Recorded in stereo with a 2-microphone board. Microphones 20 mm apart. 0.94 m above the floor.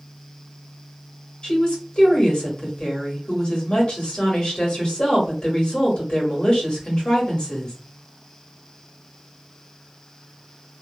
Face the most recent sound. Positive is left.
turn(degrees=55)  # may be behind; listen again after turning